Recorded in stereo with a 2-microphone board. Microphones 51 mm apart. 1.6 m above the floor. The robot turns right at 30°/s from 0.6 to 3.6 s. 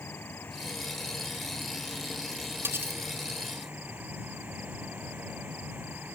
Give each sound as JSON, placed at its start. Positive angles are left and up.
{"t": 0.0, "sound": "an insect", "azimuth_deg": 130}
{"t": 2.6, "sound": "cutlery clinking", "side_deg": -60}